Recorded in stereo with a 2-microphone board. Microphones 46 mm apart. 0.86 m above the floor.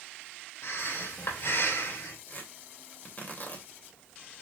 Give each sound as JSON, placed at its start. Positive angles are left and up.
{"t": 0.6, "sound": "breathing", "side_deg": 65, "distance_m": 3.5}
{"t": 2.3, "sound": "tearing paper", "side_deg": 45, "distance_m": 3.0}